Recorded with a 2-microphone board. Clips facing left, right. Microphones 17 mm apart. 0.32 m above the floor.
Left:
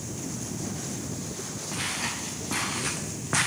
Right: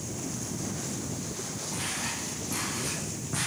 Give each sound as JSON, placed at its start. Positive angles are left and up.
{"t": 1.7, "sound": "footsteps", "side_deg": 35, "distance_m": 3.0}